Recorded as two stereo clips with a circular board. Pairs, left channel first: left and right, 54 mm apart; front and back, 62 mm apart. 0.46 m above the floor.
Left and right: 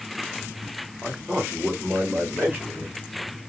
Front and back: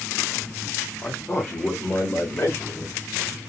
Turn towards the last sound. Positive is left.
turn(degrees=-50)